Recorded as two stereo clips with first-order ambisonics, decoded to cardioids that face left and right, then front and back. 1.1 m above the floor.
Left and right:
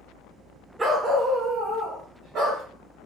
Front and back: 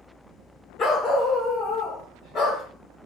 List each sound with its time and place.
0.8 s a dog barking: 20° right, 0.8 m; by 2.6 s 50° right, 1.7 m